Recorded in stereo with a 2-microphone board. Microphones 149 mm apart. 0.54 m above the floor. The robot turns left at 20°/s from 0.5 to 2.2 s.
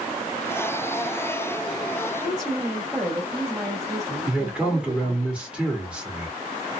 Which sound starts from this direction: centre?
A man speaking, at 4.3 s.